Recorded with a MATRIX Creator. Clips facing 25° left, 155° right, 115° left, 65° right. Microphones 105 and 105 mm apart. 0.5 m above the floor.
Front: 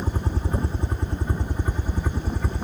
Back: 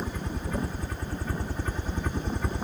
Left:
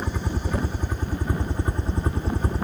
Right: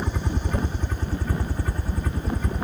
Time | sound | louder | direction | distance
0.0 | a helicopter | front 4 dB, even | 25° left | ?